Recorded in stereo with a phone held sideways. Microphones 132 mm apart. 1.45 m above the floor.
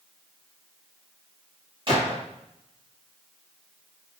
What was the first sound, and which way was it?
A gunshot, 40° right (ahead or behind).